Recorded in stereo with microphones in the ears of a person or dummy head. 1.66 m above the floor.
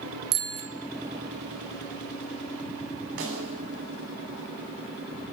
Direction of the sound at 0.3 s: 35° right (ahead or behind).